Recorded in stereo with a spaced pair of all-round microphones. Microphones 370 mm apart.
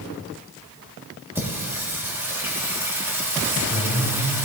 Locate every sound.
1.4 s singing: 5° right (ahead or behind), 1.8 m